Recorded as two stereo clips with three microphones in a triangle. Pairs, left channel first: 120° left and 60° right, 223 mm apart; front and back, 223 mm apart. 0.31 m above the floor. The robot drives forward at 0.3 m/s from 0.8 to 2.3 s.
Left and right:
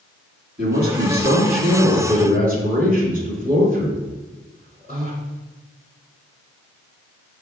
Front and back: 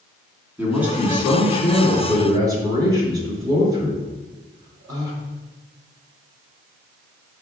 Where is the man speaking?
100° right, 3 m; by 5.2 s 105° right, 3 m.